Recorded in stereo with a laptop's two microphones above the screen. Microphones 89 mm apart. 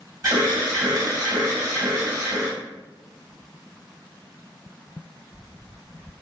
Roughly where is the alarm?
Right.